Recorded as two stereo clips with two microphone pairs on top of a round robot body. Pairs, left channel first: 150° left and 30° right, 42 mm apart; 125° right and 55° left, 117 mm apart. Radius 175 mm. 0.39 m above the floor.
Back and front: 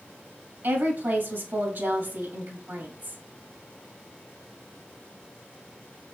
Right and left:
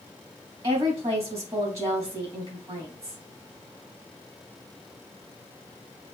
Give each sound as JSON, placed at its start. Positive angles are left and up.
{"t": 0.6, "sound": "a woman speaking", "azimuth_deg": -5, "distance_m": 4.0}